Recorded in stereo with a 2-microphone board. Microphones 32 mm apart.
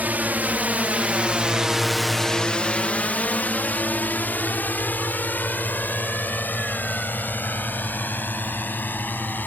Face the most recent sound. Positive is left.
turn(degrees=85)